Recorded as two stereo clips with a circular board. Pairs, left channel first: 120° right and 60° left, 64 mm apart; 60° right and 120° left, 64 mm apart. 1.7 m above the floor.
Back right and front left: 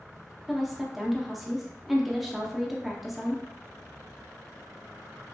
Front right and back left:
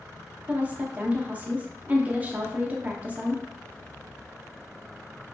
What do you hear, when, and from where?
0.5 s a woman speaking: 145° left, 0.5 m